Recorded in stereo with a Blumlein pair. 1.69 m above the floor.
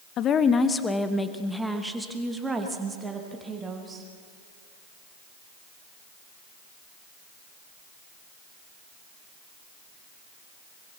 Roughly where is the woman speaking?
Ahead left.